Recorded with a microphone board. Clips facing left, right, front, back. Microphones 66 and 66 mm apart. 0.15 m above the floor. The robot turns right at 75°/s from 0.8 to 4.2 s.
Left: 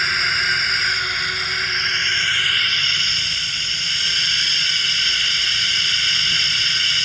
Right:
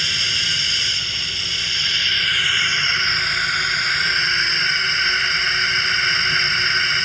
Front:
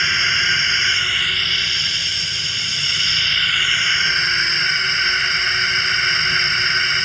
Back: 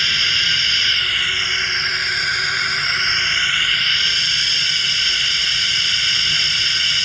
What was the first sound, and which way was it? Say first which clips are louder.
A drone: left 5 dB, front 2 dB; 60° left.